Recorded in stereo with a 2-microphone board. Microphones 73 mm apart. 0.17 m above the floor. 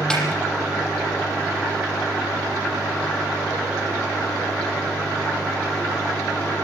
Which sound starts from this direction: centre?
A snare drum, at 0.1 s.